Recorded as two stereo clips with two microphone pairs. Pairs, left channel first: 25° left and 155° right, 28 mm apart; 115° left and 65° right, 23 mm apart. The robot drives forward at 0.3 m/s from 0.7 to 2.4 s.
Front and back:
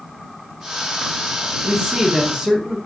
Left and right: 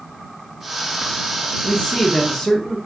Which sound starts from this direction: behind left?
A man speaking, at 1.6 s.